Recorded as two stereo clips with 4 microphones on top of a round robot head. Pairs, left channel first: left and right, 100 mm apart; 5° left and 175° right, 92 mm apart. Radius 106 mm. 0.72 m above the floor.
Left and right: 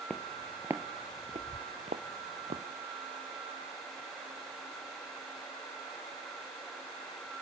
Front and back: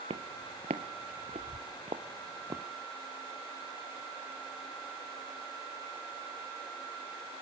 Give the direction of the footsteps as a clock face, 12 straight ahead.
6 o'clock.